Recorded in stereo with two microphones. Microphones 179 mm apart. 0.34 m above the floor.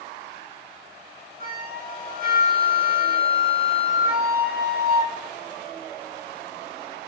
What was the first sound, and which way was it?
A flute, 50° right (ahead or behind).